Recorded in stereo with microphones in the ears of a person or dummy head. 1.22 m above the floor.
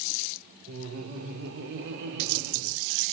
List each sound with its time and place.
0.7 s laughter: 75° right (ahead or behind), 3.5 m; by 2.8 s 60° right (ahead or behind), 4.5 m